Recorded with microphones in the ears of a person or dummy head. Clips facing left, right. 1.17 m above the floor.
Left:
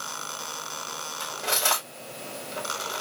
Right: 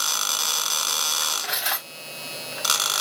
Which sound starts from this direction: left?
Cutlery clinking, at 1.2 s.